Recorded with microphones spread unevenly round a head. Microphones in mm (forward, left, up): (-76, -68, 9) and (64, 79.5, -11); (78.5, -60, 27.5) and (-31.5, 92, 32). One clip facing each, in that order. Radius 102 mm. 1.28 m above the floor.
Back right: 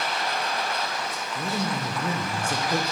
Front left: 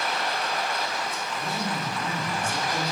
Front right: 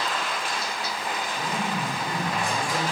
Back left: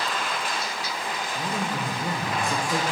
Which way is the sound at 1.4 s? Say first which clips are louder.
Back right 4 dB, back left 2 dB; 165° right.